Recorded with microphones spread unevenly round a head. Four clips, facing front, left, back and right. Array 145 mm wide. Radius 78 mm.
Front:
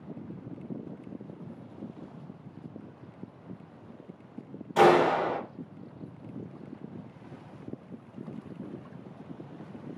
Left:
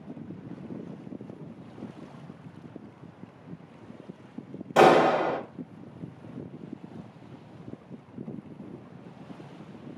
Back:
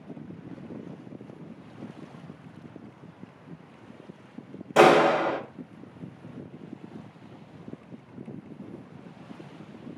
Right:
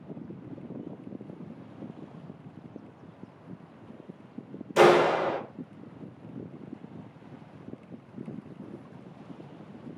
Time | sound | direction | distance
4.8 | a clap | 150° left | 1.3 m